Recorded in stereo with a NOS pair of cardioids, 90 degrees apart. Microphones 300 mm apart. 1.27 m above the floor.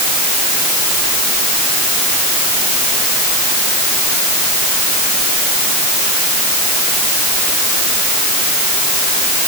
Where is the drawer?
I don't hear a drawer.